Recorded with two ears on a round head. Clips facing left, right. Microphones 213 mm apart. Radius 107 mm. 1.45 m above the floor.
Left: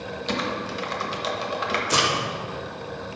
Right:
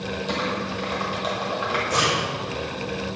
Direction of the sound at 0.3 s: 30° left (ahead or behind).